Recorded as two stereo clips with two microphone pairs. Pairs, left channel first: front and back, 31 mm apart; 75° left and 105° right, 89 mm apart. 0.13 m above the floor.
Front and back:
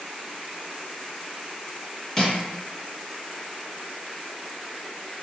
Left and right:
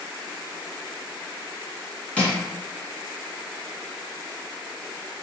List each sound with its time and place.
2.2 s crushing: 30° left, 1.7 m